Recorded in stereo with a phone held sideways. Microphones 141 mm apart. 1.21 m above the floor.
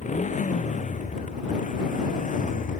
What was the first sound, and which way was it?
A motorcycle, 60° left (ahead or behind).